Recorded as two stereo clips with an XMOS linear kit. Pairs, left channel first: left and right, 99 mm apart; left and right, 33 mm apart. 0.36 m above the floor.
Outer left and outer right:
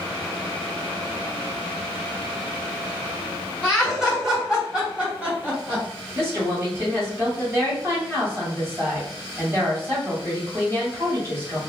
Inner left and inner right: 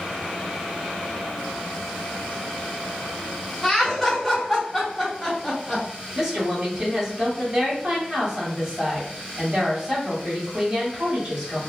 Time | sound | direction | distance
3.6 | laughter | centre (ahead or behind) | 1.5 m
6.2 | a woman speaking | 25° right (ahead or behind) | 1.8 m